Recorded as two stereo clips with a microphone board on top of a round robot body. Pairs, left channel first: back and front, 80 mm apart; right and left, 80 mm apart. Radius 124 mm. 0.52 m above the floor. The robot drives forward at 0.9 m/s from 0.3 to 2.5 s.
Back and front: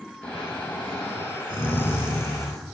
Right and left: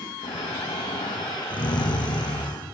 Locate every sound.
0.2 s snoring: 105° right, 5.5 m; by 2.6 s 120° right, 6.5 m